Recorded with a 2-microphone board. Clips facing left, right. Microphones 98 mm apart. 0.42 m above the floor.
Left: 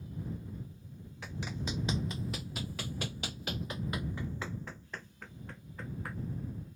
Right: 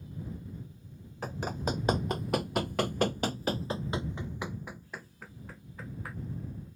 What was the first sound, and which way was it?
Running footsteps, 45° right (ahead or behind).